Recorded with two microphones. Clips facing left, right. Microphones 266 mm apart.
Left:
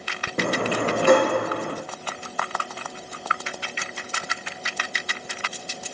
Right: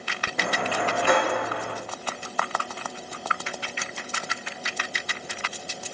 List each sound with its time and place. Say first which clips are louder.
0.4 s a sliding door: left 5 dB; 40° left (ahead or behind), 1.5 m